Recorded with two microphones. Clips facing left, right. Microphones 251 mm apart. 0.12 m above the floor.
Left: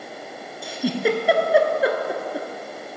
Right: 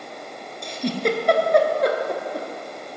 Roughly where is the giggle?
Centre.